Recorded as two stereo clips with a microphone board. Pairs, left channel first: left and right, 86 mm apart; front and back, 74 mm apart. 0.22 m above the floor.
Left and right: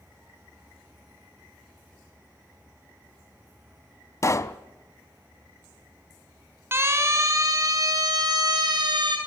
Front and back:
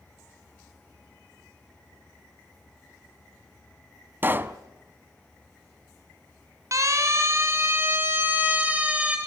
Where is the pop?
130° left, 0.7 m.